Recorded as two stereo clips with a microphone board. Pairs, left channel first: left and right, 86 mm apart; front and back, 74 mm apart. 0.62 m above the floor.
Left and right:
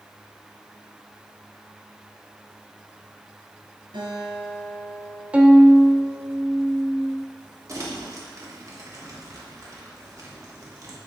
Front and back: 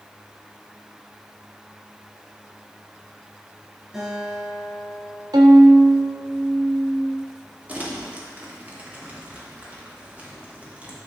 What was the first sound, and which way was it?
A guitar, 100° right.